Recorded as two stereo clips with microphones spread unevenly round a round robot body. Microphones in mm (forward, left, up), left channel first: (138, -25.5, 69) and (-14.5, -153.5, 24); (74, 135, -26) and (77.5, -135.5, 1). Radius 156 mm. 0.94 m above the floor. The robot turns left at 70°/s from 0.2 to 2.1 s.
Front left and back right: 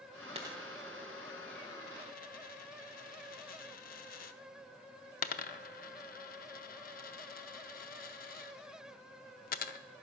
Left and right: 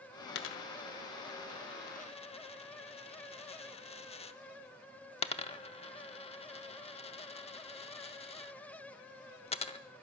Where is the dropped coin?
145° left, 0.7 m; by 9.8 s 20° left, 0.7 m.